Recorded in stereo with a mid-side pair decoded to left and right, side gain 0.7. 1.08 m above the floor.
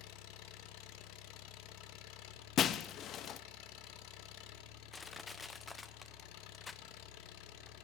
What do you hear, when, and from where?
0.0 s an engine running: 65° left, 0.9 m
2.6 s breaking glass: 45° left, 0.6 m
4.9 s crushing: 20° left, 0.6 m